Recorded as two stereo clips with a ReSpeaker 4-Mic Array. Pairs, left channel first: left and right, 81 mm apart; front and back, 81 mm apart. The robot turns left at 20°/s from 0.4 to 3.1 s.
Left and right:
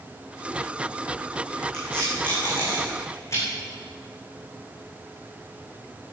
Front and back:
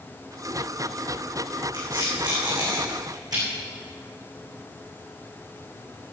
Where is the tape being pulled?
170° left, 8 m; by 3.4 s 145° left, 8 m.